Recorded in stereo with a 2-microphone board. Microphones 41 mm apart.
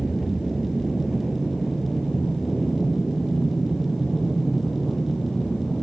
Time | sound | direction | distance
0.0 | an aircraft | 5° right (ahead or behind) | ?